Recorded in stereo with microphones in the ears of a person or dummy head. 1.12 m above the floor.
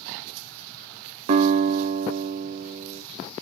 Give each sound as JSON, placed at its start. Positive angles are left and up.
{"t": 1.3, "sound": "a guitar", "side_deg": -50, "distance_m": 1.9}